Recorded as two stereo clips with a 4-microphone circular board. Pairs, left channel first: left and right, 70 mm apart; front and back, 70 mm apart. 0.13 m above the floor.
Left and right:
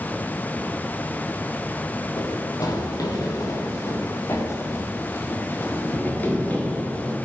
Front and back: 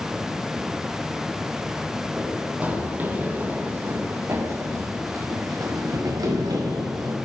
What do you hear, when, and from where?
2.2 s running footsteps: 105° left, 3.5 m; by 7.2 s 160° left, 4 m